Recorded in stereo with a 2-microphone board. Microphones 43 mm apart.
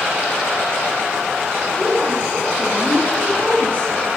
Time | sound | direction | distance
1.8 | a woman speaking | 15° left (ahead or behind) | 7 m